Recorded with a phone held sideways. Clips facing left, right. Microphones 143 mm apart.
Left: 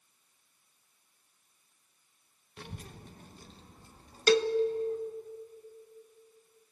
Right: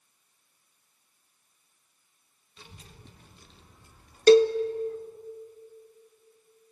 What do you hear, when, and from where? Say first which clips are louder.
2.6 s a child speaking: left 6 dB; 60° left (ahead or behind), 0.9 m; by 5.0 s 30° left (ahead or behind), 3 m
4.3 s a cowbell: right 9 dB; 35° right (ahead or behind), 0.6 m